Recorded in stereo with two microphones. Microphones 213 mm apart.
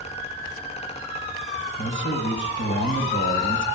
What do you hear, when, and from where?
1.8 s a man speaking: 65° left (ahead or behind), 6 m